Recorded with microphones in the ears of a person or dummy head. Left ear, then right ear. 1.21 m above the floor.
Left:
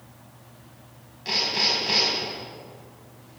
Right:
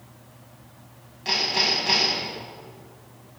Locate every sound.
1.2 s hammering: 15° right (ahead or behind), 6 m